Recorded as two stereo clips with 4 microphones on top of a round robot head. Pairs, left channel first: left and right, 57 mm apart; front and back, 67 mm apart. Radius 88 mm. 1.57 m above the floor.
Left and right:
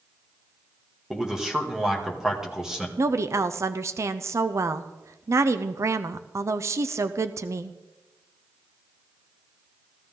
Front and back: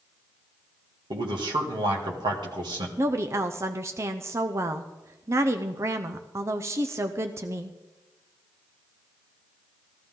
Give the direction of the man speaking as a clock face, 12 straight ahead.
6 o'clock.